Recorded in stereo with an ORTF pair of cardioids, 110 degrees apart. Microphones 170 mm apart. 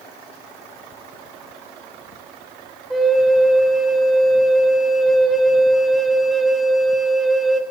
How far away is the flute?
About 1.2 m.